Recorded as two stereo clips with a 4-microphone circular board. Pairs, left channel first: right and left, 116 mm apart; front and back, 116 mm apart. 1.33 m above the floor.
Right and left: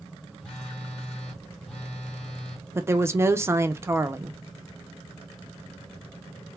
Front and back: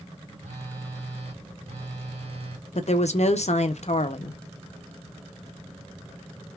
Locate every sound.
0.4 s a phone buzzing: 175° right, 2 m
2.8 s a woman speaking: 20° left, 0.5 m